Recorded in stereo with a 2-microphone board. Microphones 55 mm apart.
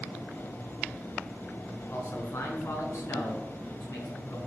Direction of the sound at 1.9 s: 50° left (ahead or behind).